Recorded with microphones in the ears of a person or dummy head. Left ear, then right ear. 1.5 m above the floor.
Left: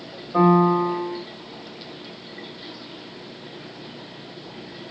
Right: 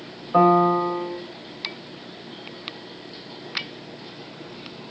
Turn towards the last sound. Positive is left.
turn(degrees=-55)  # may be behind; listen again after turning